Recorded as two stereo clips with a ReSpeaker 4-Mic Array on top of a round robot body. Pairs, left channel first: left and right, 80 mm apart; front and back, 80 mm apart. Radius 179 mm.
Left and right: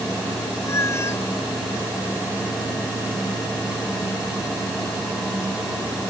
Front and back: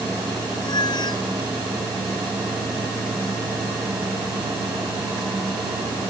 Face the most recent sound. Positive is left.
turn(degrees=35)